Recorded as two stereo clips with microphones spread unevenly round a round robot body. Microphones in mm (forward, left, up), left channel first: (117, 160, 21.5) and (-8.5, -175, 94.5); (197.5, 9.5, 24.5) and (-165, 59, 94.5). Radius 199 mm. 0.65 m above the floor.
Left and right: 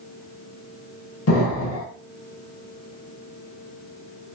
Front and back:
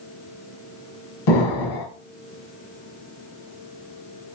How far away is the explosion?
About 2.0 m.